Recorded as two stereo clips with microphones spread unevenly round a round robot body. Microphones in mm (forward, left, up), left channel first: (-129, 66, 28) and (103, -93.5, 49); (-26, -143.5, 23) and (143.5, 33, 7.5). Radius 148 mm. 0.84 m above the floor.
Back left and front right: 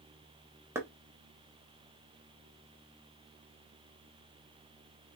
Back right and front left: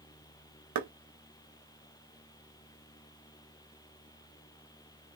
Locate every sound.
0.8 s knocking: 50° left, 0.8 m